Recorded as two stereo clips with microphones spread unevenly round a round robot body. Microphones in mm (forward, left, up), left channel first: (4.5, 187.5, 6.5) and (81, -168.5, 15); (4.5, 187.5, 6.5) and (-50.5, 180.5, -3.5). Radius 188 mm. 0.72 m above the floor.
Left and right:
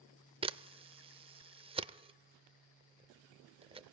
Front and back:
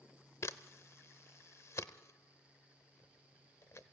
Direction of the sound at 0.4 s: 5° right.